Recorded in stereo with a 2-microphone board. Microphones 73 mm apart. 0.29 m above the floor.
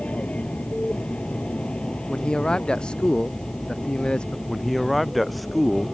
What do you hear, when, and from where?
0.0 s an aircraft: 15° left (ahead or behind); by 6.0 s 5° left (ahead or behind)
2.1 s a man speaking: 10° left (ahead or behind)
4.5 s a man speaking: centre (ahead or behind)